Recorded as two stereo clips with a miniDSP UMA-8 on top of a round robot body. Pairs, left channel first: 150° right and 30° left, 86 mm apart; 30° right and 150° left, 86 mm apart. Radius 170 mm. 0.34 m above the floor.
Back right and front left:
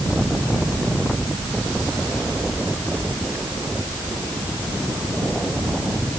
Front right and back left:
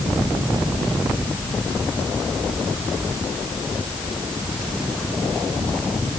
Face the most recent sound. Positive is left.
No sound to turn to.